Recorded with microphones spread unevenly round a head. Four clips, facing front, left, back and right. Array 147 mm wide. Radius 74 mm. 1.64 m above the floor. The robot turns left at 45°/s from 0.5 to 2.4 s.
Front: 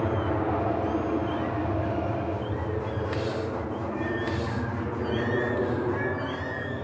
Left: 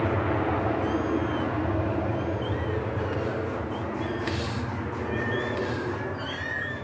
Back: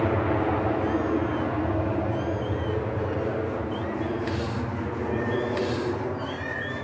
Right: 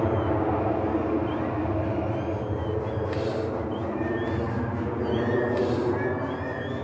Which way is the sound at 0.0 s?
125° right.